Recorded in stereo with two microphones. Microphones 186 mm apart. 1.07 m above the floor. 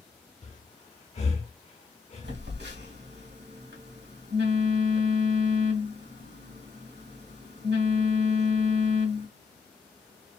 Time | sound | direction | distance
0.4 | breathing | 35° left (ahead or behind) | 0.7 m
2.2 | a phone buzzing | 65° right (ahead or behind) | 1.4 m